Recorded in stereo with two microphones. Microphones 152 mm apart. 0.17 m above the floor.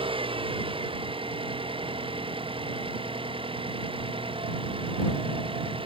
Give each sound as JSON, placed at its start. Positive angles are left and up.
{"t": 0.0, "sound": "an engine running", "side_deg": -35}